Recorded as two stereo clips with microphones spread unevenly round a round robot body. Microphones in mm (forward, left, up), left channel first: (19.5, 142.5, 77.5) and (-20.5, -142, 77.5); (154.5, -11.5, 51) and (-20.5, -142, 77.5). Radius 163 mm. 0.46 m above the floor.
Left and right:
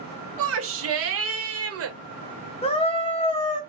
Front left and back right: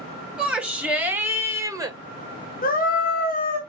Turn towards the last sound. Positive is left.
turn(degrees=20)